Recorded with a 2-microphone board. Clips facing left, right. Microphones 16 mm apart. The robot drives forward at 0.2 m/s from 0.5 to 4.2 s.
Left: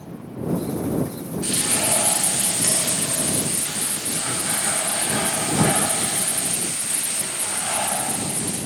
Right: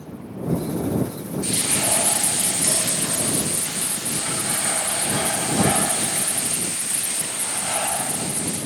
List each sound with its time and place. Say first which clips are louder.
1.4 s frying: even; 35° left (ahead or behind), 2.5 m; by 8.6 s 30° left (ahead or behind), 3 m